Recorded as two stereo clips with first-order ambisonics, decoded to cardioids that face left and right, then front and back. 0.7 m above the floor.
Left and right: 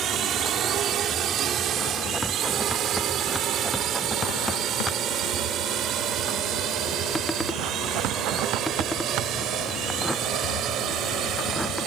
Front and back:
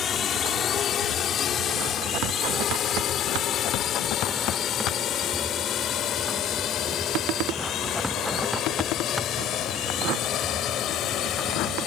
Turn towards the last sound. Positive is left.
turn(degrees=-45)